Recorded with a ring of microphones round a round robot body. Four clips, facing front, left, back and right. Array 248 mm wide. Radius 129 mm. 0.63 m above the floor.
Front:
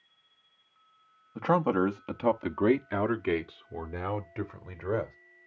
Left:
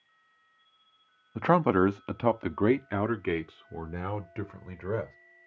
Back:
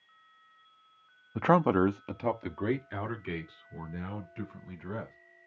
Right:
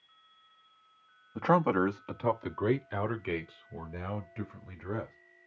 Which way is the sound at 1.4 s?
145° left.